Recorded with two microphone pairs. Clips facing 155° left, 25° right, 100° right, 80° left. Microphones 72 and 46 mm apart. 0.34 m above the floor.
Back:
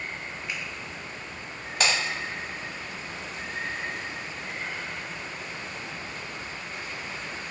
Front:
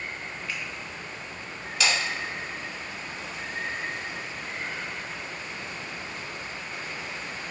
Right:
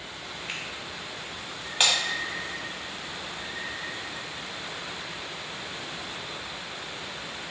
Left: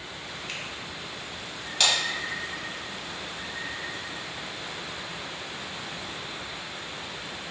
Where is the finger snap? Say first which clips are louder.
Even, right 2 dB; 155° right, 1.1 m.